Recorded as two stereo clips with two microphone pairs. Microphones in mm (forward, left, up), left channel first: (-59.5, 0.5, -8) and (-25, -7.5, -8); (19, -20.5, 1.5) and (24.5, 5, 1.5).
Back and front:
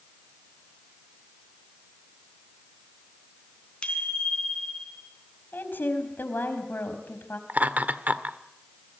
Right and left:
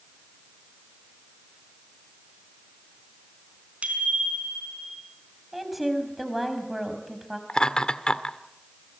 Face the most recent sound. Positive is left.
turn(degrees=-45)